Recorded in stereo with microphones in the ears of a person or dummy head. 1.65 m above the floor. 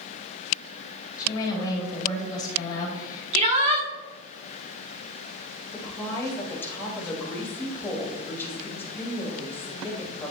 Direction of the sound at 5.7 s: 15° left (ahead or behind).